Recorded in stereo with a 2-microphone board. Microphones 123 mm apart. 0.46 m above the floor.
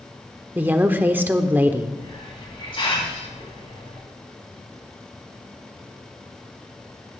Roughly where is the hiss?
Left.